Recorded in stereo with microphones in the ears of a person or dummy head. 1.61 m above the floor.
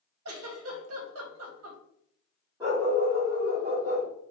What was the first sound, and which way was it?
A giggle, 80° right.